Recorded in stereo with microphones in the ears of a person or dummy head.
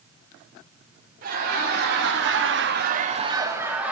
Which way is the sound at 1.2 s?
50° right (ahead or behind).